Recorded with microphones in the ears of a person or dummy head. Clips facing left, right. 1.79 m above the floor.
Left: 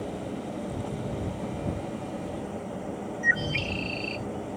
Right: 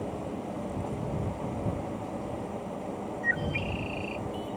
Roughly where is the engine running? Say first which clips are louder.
Left 1 dB; centre.